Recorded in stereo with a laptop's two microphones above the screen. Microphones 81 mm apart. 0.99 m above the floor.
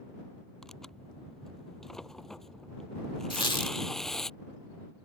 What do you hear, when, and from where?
0.6 s tearing paper: 5° left (ahead or behind)
3.3 s a squeak: 80° left